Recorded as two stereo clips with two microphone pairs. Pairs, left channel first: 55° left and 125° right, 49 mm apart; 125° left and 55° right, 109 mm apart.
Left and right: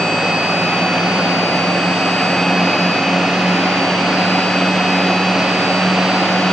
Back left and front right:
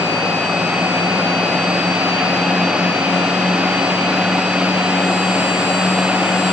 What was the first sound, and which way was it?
Only background noise.